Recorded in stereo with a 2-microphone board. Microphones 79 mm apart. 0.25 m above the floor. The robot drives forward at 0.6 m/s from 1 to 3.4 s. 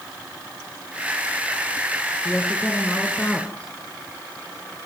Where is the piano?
No piano in this recording.